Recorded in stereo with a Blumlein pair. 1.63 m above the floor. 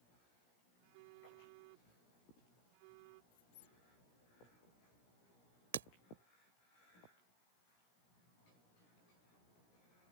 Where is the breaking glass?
60° right.